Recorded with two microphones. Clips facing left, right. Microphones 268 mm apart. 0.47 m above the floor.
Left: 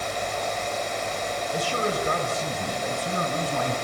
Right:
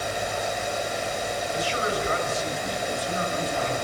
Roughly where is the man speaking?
Left.